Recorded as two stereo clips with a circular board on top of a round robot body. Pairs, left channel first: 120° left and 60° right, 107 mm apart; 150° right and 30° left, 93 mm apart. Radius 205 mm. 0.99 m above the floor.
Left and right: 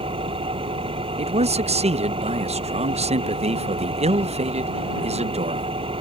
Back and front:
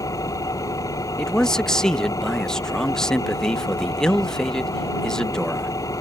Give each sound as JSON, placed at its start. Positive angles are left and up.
{"t": 0.0, "sound": "an engine running", "azimuth_deg": -95}
{"t": 1.2, "sound": "a man speaking", "azimuth_deg": -65}